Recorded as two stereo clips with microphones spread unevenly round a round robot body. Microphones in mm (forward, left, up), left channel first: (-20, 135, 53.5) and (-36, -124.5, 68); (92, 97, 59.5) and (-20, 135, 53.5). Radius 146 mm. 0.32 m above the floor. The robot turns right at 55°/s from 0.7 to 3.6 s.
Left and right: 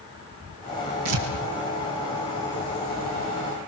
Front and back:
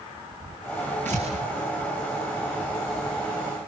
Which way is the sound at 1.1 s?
100° right.